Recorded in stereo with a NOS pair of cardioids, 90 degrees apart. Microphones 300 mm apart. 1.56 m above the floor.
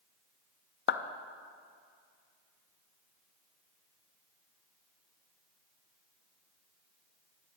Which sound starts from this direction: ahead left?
A clap, at 0.9 s.